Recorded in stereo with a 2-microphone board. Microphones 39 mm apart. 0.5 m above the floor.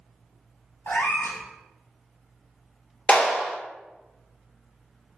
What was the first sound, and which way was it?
A cat meowing, 60° left (ahead or behind).